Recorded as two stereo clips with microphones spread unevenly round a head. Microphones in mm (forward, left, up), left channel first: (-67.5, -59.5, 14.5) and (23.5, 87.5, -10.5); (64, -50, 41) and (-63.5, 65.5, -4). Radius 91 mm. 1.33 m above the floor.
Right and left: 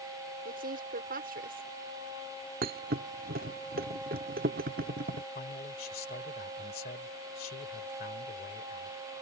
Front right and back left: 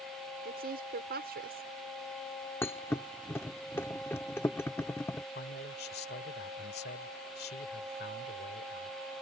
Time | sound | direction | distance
0.5 | a woman speaking | 95° left | ?
2.6 | a thud | 20° left | ?
5.3 | a man speaking | 80° right | ?